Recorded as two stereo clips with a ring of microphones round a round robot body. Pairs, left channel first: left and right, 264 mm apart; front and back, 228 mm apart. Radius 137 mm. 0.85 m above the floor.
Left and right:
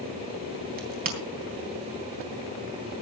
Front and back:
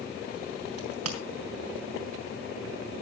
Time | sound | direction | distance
0.8 | a crack | 145° right | 3.5 m